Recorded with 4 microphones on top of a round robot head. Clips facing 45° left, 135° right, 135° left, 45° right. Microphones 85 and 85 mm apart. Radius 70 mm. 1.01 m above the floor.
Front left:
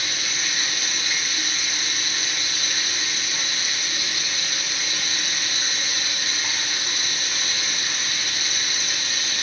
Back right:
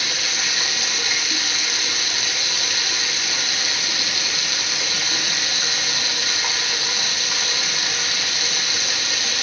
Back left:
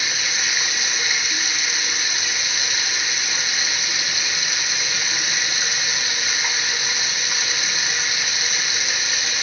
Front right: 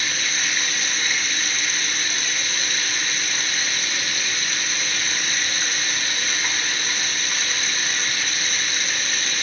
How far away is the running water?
About 1.0 m.